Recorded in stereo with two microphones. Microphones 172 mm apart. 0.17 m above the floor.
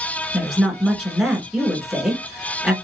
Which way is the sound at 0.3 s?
Centre (ahead or behind).